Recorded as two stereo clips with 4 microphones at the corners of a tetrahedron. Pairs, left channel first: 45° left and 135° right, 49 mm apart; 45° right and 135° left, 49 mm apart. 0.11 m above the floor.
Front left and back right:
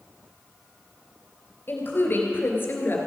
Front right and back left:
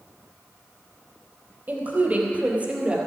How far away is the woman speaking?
About 2.5 m.